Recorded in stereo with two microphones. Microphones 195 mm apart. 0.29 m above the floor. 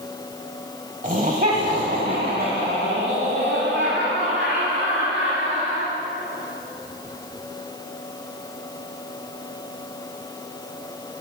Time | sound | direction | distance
1.0 | laughter | 40° right (ahead or behind) | 1.2 m